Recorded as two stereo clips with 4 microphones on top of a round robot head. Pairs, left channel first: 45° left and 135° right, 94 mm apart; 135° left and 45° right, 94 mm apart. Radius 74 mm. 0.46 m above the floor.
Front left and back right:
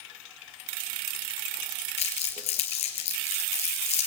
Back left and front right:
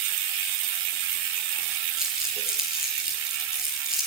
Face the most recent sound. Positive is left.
turn(degrees=40)